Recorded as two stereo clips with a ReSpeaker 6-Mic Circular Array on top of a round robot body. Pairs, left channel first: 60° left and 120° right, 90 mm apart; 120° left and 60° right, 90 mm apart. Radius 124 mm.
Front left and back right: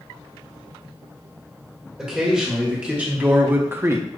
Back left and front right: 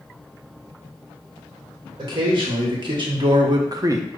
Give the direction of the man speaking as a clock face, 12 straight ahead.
1 o'clock.